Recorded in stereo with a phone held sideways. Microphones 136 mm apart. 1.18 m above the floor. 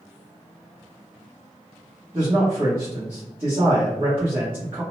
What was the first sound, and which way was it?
A man speaking, 45° right (ahead or behind).